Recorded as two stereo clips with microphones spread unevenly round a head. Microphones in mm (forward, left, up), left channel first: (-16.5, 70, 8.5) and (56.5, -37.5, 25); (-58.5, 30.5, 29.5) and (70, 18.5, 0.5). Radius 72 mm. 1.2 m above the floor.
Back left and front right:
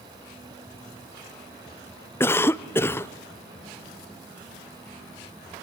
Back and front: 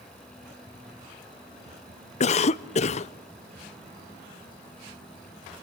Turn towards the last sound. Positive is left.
turn(degrees=175)